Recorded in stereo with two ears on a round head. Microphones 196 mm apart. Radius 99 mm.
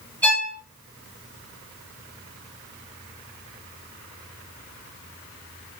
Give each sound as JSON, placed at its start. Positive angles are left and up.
{"t": 0.2, "sound": "a violin", "side_deg": 10, "distance_m": 5.5}